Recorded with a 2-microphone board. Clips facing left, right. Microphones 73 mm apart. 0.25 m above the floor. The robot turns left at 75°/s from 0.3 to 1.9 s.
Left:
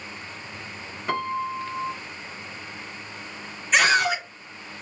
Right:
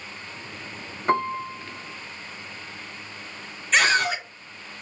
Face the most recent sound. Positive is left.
turn(degrees=15)  # may be behind; listen again after turning